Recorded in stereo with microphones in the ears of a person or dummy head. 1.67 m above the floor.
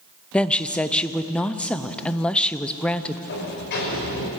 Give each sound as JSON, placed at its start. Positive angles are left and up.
{"t": 0.3, "sound": "a woman speaking", "side_deg": 5, "distance_m": 0.7}
{"t": 3.3, "sound": "a sliding door", "side_deg": 60, "distance_m": 5.0}